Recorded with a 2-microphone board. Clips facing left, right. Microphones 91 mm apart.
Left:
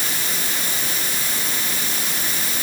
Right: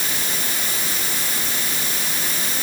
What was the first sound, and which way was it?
Only background noise.